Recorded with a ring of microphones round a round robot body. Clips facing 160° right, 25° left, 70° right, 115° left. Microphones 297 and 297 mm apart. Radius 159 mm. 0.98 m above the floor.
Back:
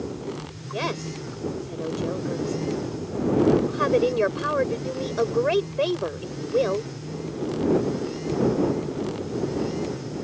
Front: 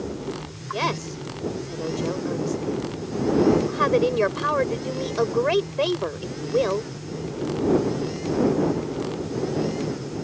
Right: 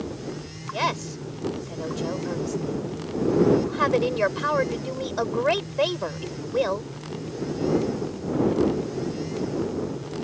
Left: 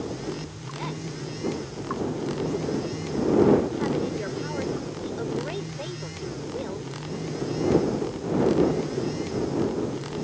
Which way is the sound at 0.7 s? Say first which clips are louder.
Front 1 dB, right 3 dB; 65° right.